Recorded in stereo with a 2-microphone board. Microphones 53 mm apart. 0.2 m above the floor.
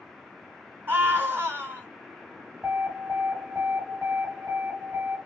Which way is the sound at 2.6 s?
30° right (ahead or behind).